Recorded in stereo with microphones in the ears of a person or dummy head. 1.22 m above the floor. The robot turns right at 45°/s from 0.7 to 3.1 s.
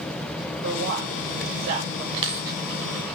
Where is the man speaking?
55° right (ahead or behind), 1.7 m; by 2.0 s 65° right (ahead or behind), 1.7 m.